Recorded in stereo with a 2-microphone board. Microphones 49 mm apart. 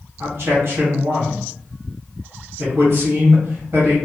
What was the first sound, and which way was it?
A man speaking, 55° right (ahead or behind).